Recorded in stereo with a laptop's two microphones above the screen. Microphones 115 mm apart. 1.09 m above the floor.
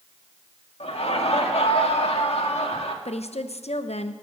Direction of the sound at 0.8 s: 60° left (ahead or behind).